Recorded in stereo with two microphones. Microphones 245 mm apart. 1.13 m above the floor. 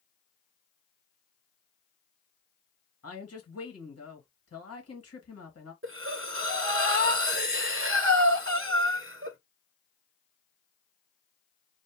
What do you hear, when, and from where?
3.0 s a woman speaking: 75° left (ahead or behind), 1.6 m
5.8 s breathing: 55° right (ahead or behind), 0.7 m